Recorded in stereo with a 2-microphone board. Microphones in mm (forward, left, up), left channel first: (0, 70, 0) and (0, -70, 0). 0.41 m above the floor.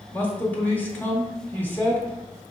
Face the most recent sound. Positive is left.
turn(degrees=15)  # may be behind; listen again after turning